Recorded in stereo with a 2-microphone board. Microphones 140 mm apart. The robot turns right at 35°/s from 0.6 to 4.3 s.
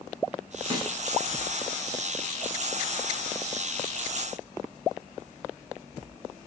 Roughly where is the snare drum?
Right.